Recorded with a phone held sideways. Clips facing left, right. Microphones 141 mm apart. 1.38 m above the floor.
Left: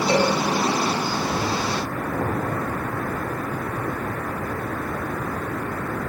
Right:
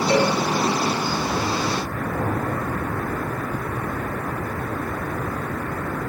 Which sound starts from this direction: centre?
A cowbell, at 0.1 s.